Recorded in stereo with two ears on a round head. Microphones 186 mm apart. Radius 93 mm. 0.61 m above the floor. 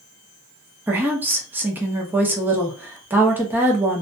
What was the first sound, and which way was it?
A woman speaking, 10° right (ahead or behind).